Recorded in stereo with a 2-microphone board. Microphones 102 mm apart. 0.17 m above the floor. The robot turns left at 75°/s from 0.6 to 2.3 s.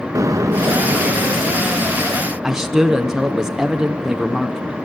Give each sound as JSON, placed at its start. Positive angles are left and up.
{"t": 0.1, "sound": "an explosion", "azimuth_deg": -35, "distance_m": 0.6}
{"t": 2.4, "sound": "a man speaking", "side_deg": -5, "distance_m": 1.3}